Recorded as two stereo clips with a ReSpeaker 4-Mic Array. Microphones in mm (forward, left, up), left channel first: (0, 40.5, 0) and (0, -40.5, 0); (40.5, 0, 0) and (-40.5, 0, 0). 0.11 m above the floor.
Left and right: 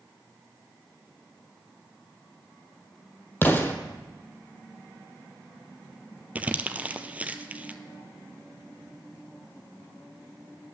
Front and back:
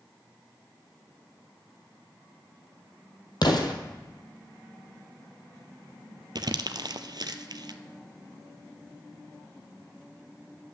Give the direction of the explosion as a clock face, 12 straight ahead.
11 o'clock.